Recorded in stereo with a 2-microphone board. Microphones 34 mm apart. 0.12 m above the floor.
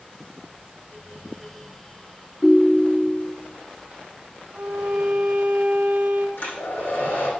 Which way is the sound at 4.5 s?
65° right (ahead or behind).